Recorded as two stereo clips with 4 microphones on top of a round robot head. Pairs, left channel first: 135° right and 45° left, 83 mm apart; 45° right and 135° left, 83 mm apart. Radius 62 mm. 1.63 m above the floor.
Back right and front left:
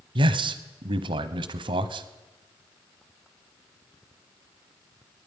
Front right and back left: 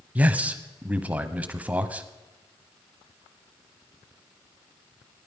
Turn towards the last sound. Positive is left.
turn(degrees=60)